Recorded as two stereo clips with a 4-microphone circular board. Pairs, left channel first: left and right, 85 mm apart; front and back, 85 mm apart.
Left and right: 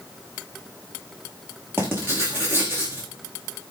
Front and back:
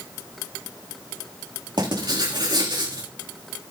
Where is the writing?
155° right, 7 m.